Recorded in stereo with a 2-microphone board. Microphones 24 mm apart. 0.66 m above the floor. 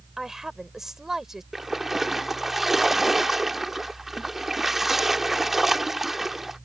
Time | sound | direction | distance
0.2 | a woman speaking | 20° right (ahead or behind) | ?
1.5 | a splash | 10° right (ahead or behind) | ?